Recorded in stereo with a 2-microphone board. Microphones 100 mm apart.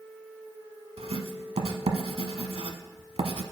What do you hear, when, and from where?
1.0 s writing: 85° right, 0.9 m